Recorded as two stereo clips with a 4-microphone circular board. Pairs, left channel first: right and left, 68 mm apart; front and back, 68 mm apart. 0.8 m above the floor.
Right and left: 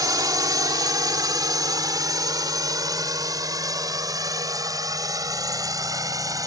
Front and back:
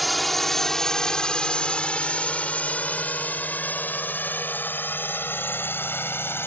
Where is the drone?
90° left; by 6.5 s 55° left.